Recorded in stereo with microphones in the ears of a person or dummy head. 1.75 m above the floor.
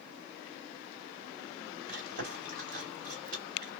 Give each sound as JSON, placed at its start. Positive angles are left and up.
{"t": 1.9, "sound": "chewing", "side_deg": -55, "distance_m": 1.8}